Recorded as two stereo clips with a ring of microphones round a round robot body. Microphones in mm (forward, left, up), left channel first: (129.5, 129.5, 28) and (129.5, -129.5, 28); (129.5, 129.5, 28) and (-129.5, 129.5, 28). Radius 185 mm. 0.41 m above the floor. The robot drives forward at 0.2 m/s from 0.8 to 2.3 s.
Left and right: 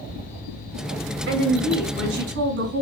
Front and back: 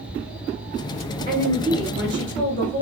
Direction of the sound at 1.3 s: 130° right.